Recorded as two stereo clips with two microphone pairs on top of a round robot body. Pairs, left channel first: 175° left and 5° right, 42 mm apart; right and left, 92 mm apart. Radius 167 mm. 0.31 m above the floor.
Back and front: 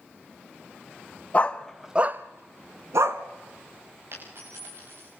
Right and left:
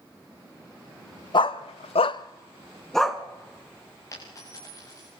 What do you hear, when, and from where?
1.3 s a dog barking: 125° right, 0.9 m; by 3.2 s straight ahead, 1.4 m
4.1 s a dropped coin: 35° right, 9 m